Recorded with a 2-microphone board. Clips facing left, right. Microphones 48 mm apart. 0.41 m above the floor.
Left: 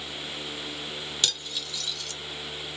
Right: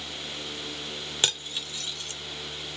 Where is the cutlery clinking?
35° right (ahead or behind), 0.6 m.